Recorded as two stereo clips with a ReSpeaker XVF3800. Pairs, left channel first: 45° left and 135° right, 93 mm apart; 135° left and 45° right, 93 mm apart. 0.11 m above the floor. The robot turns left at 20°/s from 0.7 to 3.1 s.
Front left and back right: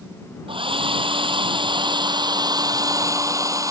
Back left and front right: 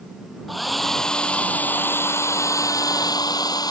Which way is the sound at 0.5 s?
135° right.